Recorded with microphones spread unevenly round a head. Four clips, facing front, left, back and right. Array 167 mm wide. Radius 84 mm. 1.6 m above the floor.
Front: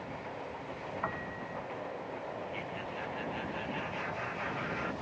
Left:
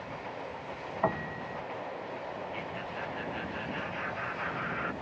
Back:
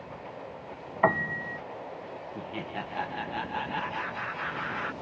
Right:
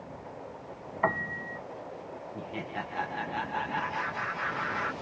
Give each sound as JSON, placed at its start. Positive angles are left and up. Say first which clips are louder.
{"t": 1.0, "sound": "a piano", "louder": "right 2 dB, back 16 dB", "azimuth_deg": 170}
{"t": 2.4, "sound": "laughter", "louder": "right 1 dB, back 3 dB", "azimuth_deg": -145}